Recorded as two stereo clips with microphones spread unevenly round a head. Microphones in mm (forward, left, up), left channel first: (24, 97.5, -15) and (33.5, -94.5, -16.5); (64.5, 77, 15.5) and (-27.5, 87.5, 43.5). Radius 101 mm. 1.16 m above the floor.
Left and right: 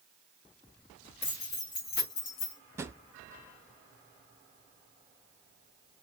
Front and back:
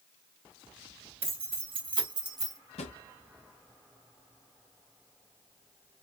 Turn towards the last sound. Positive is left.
turn(degrees=-10)